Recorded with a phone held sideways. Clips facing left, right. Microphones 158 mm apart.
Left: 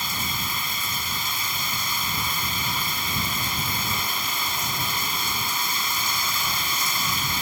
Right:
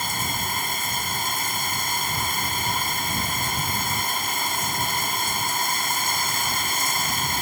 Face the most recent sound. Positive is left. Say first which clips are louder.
# right 3 dB
turn(degrees=-55)  # may be behind; listen again after turning